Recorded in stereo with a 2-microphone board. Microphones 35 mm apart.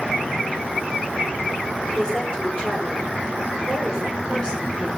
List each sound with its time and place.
1.9 s a woman speaking: 25° left (ahead or behind), 7 m